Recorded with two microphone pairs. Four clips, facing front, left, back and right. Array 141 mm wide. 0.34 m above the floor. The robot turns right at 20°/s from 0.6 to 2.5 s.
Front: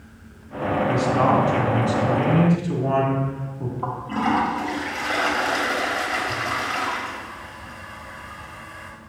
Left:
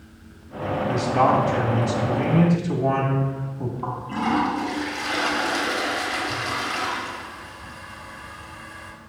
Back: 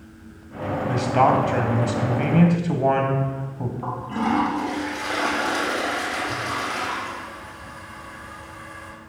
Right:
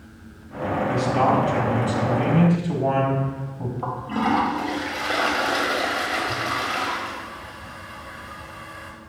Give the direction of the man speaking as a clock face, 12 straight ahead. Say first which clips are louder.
Left 1 dB, back 2 dB; 7 o'clock.